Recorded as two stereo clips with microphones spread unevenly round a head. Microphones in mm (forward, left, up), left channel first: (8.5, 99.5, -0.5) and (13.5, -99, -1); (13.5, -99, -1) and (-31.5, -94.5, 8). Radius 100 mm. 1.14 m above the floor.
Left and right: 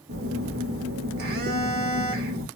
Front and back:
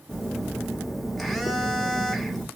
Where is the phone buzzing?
105° right, 1.0 m.